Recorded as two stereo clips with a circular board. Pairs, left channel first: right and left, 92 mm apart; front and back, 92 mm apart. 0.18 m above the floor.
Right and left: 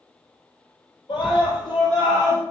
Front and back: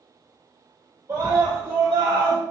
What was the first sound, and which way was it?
A scream, 120° right.